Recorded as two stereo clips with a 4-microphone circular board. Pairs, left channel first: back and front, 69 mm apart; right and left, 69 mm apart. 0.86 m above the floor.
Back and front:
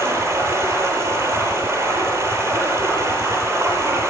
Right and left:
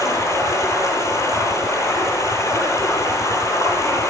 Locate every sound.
0.0 s running water: 55° right, 9 m